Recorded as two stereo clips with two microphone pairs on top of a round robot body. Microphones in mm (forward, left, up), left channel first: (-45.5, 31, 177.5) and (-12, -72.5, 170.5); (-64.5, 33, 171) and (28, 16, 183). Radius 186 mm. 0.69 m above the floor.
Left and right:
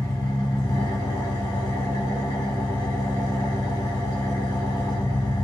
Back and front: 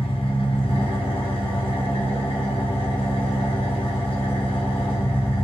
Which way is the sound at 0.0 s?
165° left.